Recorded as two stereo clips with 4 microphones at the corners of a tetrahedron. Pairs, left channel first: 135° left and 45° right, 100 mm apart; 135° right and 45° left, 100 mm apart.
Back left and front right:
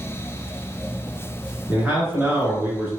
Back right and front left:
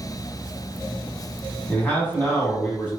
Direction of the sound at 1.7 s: 85° right.